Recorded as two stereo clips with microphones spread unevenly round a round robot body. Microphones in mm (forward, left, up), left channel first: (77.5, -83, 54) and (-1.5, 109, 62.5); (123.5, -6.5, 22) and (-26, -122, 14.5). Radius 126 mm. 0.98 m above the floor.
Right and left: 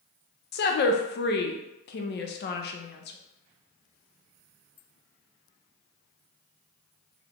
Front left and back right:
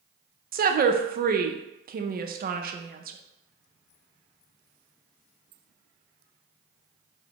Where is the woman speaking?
105° right, 0.5 m.